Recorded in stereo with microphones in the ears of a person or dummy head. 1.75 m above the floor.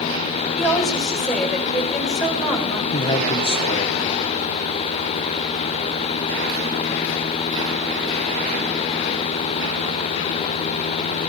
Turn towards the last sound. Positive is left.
turn(degrees=30)  # may be behind; listen again after turning